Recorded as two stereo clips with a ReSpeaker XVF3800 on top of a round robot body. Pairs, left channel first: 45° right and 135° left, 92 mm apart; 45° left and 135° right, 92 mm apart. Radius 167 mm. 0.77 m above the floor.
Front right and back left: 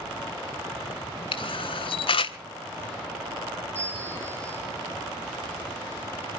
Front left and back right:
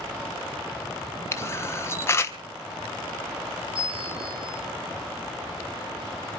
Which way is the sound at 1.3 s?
20° right.